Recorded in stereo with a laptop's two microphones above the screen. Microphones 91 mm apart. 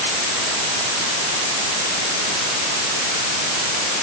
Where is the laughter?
No laughter in this recording.